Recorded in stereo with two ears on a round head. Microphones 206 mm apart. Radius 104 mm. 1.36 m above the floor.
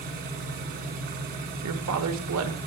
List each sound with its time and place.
0.0 s an engine running: 45° right (ahead or behind), 1.3 m
1.6 s a woman speaking: 75° right (ahead or behind), 0.9 m